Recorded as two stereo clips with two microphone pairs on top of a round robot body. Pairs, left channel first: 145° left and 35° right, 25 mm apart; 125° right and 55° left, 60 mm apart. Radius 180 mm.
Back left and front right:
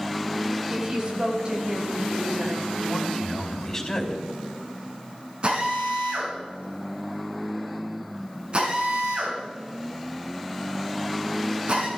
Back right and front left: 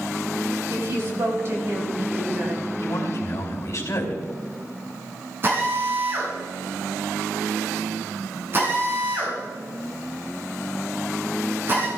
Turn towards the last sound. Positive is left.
turn(degrees=5)